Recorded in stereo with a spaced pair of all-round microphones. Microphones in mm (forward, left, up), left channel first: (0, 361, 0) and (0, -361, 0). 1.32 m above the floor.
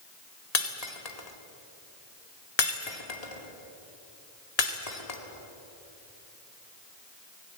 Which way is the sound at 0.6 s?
60° left (ahead or behind).